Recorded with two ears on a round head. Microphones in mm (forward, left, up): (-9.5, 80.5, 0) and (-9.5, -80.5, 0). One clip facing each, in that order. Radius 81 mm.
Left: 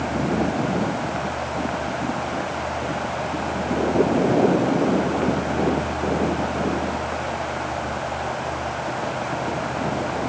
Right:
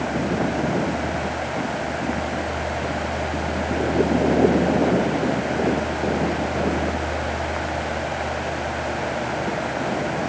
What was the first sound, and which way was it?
Only background noise.